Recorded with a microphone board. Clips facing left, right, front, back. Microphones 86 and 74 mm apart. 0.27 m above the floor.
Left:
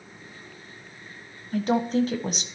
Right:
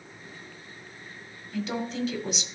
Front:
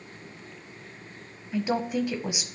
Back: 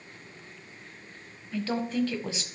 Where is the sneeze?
No sneeze in this recording.